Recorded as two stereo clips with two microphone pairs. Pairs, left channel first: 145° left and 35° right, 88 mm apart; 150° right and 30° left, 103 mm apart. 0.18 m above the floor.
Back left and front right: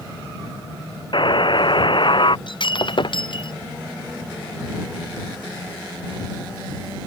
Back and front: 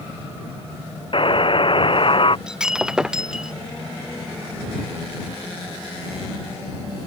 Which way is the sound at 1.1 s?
175° left.